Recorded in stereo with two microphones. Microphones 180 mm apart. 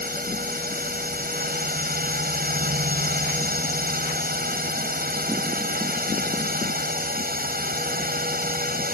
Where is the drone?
55° right (ahead or behind).